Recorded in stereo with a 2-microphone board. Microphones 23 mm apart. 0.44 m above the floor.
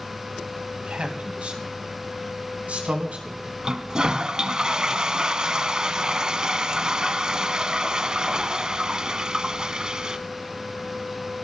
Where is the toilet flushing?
35° right (ahead or behind), 0.6 m.